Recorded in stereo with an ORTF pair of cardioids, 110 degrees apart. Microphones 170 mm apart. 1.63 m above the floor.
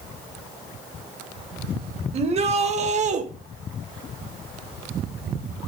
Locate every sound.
2.1 s a shout: 40° right, 2.5 m; by 3.2 s 45° right, 1.5 m